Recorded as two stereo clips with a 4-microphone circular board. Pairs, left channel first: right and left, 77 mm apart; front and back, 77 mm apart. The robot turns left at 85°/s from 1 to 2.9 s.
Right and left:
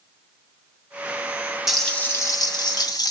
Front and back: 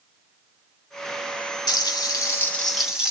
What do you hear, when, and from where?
1.7 s frying: 5° left, 3 m; by 3.1 s 100° right, 3 m